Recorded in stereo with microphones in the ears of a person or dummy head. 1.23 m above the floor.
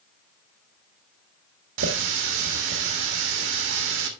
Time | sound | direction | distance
1.8 | a running tap | 65° right (ahead or behind) | 1.3 m